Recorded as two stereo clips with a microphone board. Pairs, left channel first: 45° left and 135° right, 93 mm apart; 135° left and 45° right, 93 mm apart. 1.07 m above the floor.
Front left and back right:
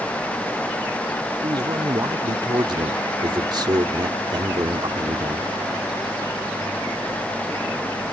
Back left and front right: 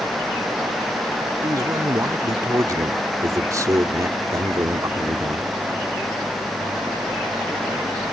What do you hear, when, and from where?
1.4 s a man speaking: 95° right